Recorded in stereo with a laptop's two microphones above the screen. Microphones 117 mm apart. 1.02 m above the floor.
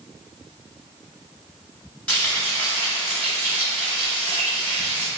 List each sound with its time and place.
2.1 s frying: 15° left (ahead or behind), 1.8 m